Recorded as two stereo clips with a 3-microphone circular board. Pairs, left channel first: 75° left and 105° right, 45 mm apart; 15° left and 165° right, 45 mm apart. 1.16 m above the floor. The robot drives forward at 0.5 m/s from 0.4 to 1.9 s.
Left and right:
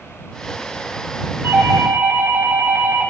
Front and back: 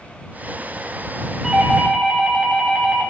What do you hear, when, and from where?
1.4 s a doorbell: 85° right, 6 m